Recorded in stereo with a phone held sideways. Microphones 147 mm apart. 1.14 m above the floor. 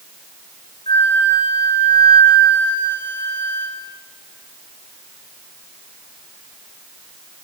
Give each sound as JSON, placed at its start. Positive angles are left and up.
{"t": 0.9, "sound": "a flute", "side_deg": 35, "distance_m": 4.0}